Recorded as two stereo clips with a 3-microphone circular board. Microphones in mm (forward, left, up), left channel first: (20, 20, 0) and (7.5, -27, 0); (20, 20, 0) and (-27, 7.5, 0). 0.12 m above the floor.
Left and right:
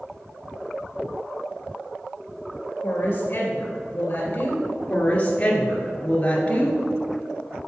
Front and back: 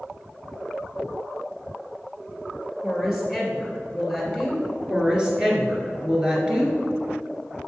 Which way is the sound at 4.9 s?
125° left.